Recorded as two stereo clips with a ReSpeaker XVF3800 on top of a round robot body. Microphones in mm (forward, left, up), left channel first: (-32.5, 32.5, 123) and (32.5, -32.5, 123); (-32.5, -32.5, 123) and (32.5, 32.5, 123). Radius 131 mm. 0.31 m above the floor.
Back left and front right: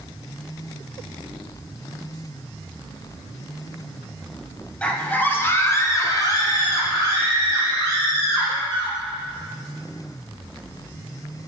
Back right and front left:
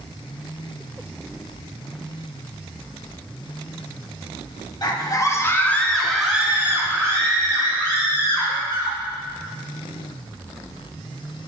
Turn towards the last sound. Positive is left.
turn(degrees=80)